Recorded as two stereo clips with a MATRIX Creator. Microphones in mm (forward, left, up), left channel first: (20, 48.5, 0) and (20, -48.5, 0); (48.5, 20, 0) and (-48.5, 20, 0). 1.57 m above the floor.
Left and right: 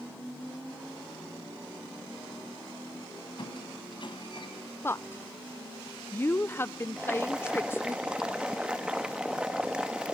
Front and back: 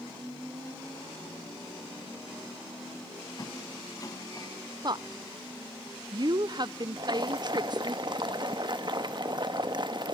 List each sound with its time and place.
3.4 s a squeak: 55° left, 4 m
4.8 s a woman speaking: 150° left, 0.5 m
7.0 s boiling: 165° right, 1.2 m